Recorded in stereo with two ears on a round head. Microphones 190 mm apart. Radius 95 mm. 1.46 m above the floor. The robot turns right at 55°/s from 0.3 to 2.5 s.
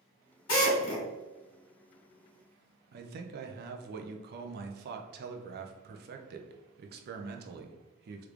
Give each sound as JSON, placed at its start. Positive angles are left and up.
{"t": 0.5, "sound": "a drill", "azimuth_deg": 80, "distance_m": 1.5}
{"t": 2.9, "sound": "a man speaking", "side_deg": -50, "distance_m": 0.5}